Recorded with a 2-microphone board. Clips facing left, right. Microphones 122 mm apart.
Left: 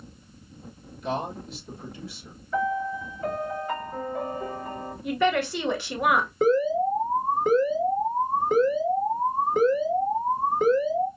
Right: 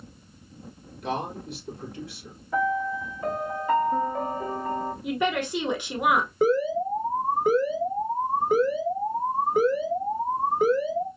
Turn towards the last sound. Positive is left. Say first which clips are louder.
# left 2 dB
turn(degrees=-5)  # may be behind; listen again after turning